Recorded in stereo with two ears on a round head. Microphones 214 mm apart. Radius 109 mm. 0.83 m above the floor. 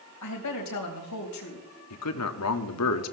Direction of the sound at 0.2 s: 85° left.